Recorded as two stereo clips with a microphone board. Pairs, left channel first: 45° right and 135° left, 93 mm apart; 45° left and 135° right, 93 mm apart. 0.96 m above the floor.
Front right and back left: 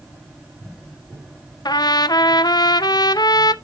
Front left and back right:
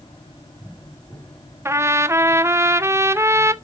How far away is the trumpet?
About 0.5 m.